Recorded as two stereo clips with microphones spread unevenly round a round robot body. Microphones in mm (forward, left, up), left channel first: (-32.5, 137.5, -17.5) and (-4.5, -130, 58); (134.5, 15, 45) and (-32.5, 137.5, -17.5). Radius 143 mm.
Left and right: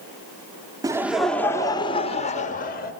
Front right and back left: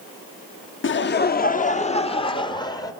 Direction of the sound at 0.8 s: Straight ahead.